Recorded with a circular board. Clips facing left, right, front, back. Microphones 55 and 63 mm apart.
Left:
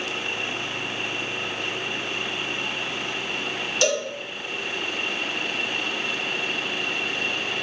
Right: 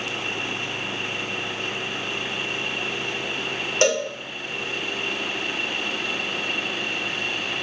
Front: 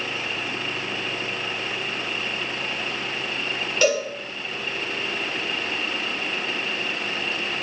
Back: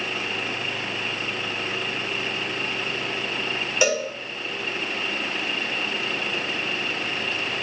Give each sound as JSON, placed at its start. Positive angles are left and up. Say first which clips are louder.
{"t": 3.8, "sound": "a cowbell", "louder": "right 3 dB, front 2 dB", "azimuth_deg": -110, "distance_m": 1.2}